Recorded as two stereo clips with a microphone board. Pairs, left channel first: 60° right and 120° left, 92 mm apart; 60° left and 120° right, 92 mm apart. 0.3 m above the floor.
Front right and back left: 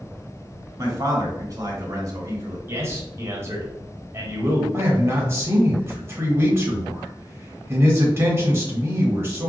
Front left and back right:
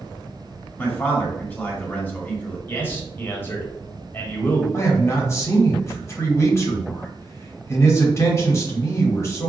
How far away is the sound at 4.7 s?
About 1.0 m.